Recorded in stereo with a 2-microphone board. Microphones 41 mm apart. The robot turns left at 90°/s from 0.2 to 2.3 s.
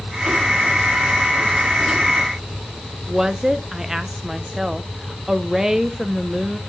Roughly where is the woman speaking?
Centre.